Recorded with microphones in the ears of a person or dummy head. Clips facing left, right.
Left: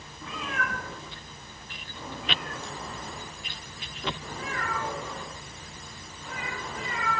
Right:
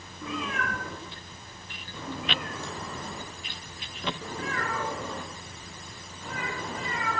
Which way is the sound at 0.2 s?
75° right (ahead or behind).